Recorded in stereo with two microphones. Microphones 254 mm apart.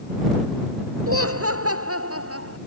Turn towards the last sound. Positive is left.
turn(degrees=-60)  # may be behind; listen again after turning